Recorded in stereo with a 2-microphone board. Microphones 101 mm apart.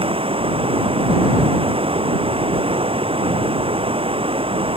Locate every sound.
0.0 s running water: 65° right (ahead or behind)